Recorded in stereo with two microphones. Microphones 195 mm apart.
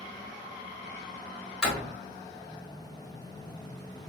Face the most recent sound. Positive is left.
turn(degrees=5)  # may be behind; listen again after turning